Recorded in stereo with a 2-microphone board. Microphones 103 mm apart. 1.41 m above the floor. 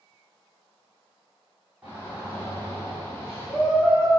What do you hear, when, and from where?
1.8 s a shout: 20° right (ahead or behind), 3 m; by 4.2 s centre (ahead or behind), 5.5 m